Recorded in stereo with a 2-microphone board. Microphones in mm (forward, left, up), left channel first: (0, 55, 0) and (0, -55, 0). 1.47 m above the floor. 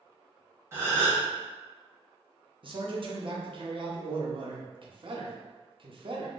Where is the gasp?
20° right (ahead or behind), 1.0 m.